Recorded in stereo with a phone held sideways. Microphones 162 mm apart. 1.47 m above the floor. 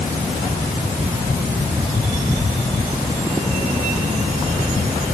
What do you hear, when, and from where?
Only background noise.